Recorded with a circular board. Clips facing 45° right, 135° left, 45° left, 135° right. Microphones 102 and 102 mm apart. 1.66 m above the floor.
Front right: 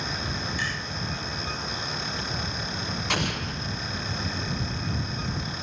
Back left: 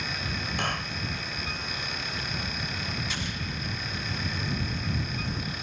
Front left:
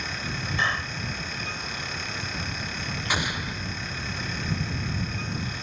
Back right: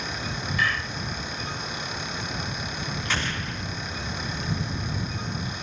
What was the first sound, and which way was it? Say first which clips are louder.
A clap: back left 1 dB, even; 105° left.